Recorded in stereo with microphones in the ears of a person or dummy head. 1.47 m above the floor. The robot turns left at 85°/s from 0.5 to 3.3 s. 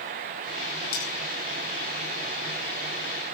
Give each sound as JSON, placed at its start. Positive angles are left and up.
{"t": 0.9, "sound": "cutlery clinking", "side_deg": 65, "distance_m": 7.0}